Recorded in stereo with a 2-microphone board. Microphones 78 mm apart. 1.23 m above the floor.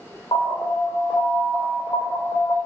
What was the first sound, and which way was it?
An alarm, 70° left (ahead or behind).